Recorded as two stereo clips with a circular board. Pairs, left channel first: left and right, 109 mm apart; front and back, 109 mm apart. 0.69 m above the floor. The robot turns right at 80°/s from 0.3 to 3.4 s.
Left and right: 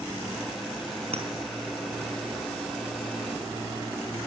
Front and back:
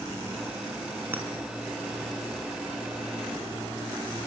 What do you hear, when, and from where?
1.1 s a clink: 110° right, 4 m; by 1.3 s 100° right, 4 m